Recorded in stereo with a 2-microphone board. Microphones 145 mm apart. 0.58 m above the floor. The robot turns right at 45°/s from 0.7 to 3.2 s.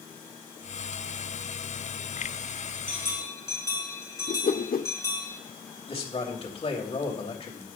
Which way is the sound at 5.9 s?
45° left (ahead or behind).